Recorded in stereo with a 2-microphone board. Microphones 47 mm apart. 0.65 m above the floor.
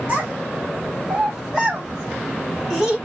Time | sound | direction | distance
0.1 | a child speaking | 20° right (ahead or behind) | 2.5 m